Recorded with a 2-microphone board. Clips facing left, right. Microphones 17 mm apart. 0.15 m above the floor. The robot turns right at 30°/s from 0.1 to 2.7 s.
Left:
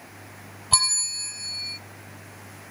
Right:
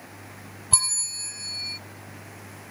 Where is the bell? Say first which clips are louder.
Left 4 dB; 155° left; by 1.8 s 175° right.